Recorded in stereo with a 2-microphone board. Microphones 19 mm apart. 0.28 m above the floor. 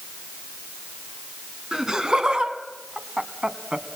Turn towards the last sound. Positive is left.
turn(degrees=-45)  # may be behind; listen again after turning